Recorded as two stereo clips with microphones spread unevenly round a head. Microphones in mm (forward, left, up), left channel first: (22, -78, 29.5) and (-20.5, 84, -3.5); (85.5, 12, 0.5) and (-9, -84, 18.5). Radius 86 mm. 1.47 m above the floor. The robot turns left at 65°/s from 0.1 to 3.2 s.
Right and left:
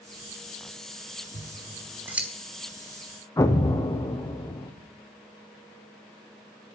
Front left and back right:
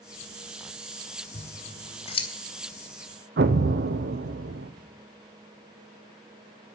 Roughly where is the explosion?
Behind right.